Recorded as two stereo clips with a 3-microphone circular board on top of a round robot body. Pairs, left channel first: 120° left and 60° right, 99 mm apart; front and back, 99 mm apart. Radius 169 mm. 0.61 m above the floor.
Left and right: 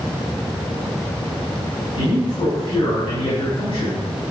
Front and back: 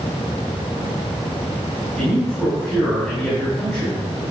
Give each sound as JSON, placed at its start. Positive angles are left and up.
{"t": 2.0, "sound": "a man speaking", "azimuth_deg": 95, "distance_m": 6.0}